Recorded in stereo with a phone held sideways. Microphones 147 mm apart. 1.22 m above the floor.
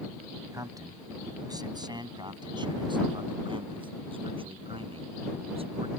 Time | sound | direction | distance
0.5 | a man speaking | 25° right (ahead or behind) | ?